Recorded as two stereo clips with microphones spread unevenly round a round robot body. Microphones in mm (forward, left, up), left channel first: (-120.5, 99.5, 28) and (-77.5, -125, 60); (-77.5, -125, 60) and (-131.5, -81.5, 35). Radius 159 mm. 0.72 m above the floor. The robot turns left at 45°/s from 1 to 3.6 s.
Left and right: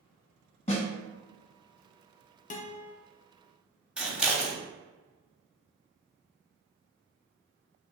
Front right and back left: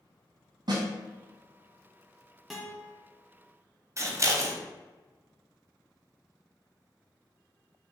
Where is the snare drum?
165° left, 1.7 m.